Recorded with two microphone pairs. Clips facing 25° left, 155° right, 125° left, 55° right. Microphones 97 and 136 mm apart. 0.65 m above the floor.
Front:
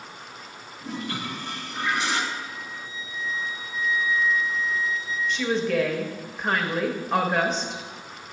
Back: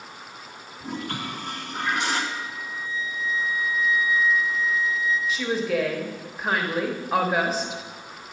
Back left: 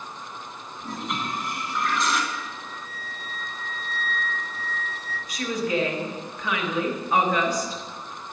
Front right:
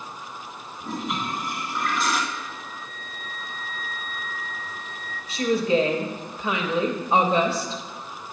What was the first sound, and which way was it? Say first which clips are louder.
A toilet flushing: even, front right 2 dB; 140° right.